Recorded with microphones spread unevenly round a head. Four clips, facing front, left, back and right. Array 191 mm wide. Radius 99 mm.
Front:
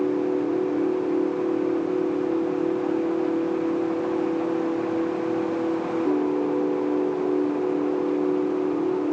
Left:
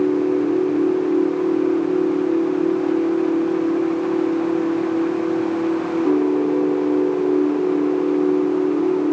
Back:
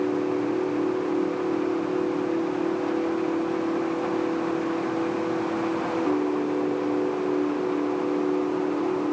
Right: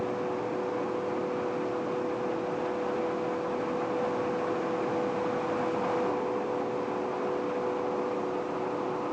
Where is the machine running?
85° left.